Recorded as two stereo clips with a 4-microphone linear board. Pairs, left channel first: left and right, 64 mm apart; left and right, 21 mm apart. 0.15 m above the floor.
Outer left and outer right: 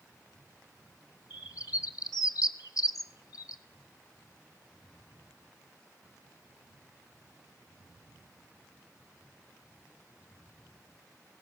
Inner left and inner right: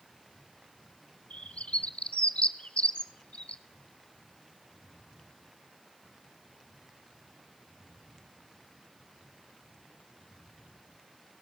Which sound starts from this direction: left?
A bird, at 1.3 s.